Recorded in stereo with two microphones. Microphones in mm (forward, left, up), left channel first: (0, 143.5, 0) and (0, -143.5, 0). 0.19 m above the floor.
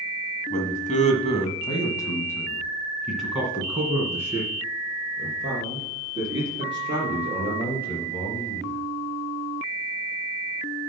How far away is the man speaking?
About 1.5 m.